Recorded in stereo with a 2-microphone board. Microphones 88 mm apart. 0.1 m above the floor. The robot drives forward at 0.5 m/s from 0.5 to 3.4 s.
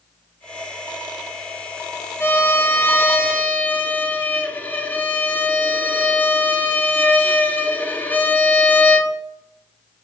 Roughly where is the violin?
Left.